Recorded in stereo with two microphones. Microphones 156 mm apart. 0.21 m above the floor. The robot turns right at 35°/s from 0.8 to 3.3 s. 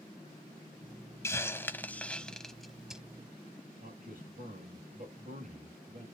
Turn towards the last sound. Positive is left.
turn(degrees=-70)  # may be behind; listen again after turning